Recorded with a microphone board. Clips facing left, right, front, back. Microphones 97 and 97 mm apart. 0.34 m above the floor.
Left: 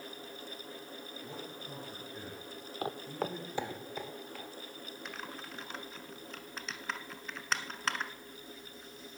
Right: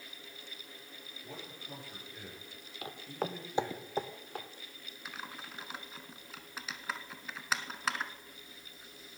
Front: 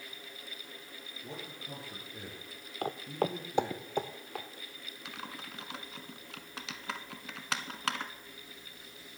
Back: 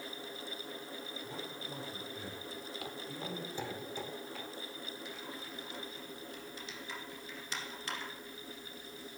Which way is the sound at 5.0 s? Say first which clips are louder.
Right 1 dB, front 1 dB; 5° right.